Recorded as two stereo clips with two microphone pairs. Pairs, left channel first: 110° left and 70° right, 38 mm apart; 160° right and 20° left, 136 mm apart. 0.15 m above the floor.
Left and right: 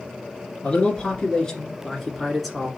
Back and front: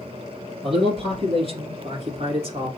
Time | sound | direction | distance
0.6 | a man speaking | 55° left | 2 m